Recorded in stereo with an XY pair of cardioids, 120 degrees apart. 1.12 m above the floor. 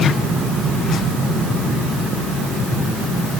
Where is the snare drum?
No snare drum in this recording.